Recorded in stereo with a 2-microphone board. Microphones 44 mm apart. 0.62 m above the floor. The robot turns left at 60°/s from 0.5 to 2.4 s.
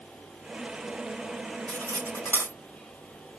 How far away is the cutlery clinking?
About 3 m.